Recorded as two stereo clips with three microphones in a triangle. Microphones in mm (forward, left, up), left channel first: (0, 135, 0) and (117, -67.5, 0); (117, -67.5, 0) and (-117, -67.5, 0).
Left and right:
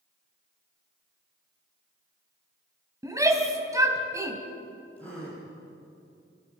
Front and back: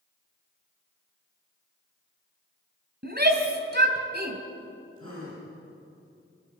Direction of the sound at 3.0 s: 135° right.